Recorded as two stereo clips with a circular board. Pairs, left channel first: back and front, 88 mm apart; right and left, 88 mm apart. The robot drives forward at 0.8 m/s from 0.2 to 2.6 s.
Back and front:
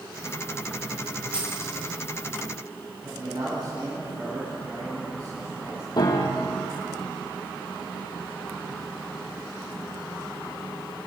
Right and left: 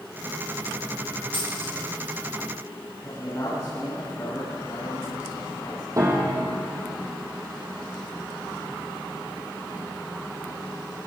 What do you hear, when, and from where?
1.3 s a dropped coin: 75° right, 8 m
3.0 s a man speaking: 35° right, 9 m
6.0 s a piano: 140° left, 5 m